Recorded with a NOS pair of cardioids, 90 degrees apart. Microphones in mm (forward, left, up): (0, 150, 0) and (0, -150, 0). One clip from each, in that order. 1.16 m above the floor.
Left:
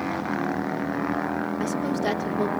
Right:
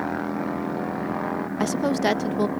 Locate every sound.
1.6 s a woman speaking: 50° right, 1.3 m